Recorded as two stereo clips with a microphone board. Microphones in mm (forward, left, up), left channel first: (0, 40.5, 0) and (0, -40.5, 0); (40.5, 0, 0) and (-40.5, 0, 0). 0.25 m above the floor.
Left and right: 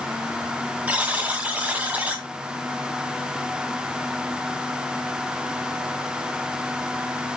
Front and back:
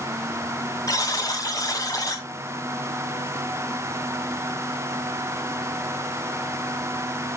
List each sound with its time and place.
0.9 s a buzzer: 20° right, 2 m